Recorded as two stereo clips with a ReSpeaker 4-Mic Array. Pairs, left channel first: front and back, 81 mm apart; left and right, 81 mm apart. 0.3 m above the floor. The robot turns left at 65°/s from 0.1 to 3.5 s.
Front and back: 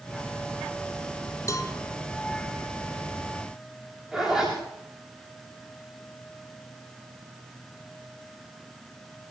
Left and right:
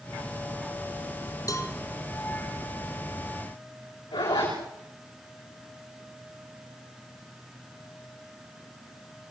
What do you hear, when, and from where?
1.5 s a cowbell: 50° left, 2.5 m; by 1.8 s 30° left, 2.5 m
4.1 s a zipper: 100° left, 9.5 m